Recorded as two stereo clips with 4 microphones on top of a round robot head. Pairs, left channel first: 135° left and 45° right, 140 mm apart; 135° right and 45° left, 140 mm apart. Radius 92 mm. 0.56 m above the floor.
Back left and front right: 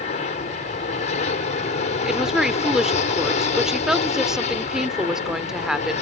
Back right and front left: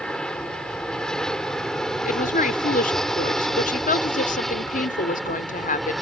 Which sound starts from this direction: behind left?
An aircraft, at 0.0 s.